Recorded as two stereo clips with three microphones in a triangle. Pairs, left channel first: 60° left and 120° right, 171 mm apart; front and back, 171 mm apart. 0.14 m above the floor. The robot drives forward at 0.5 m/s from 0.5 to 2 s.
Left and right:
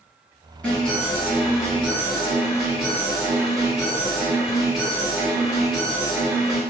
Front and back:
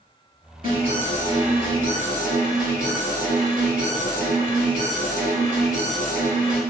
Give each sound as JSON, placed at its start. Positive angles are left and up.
{"t": 0.6, "sound": "an alarm", "azimuth_deg": 140, "distance_m": 1.9}